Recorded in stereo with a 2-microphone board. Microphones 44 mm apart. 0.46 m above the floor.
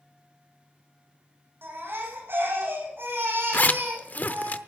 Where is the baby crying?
60° right (ahead or behind), 8 m.